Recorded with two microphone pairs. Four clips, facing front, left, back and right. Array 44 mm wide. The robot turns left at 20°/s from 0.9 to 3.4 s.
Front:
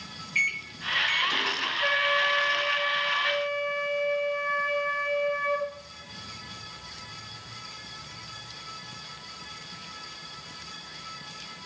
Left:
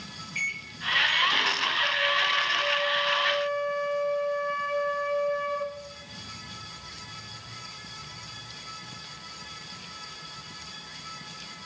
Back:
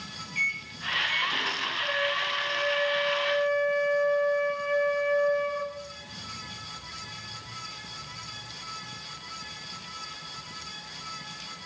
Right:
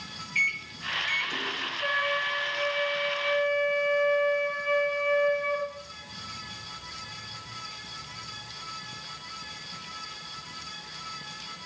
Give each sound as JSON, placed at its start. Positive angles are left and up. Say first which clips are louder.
{"t": 0.3, "sound": "a microwave", "louder": "right 5 dB, front 2 dB", "azimuth_deg": -30, "distance_m": 1.3}
{"t": 1.8, "sound": "a flute", "louder": "even, front 5 dB", "azimuth_deg": -10, "distance_m": 7.5}